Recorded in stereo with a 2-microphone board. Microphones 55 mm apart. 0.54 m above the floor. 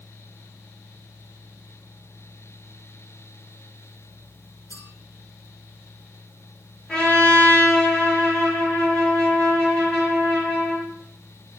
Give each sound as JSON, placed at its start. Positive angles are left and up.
{"t": 4.7, "sound": "a clink", "side_deg": 75, "distance_m": 7.0}
{"t": 6.9, "sound": "a trumpet", "side_deg": 10, "distance_m": 7.0}